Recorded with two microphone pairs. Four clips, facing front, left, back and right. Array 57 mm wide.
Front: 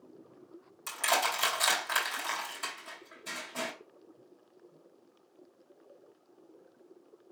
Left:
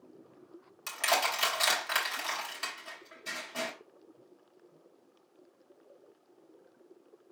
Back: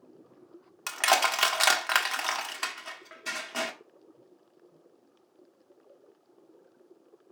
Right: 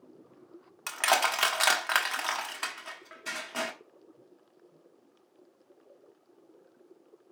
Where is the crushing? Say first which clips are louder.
Right 3 dB, back 5 dB; 140° right, 1.2 m.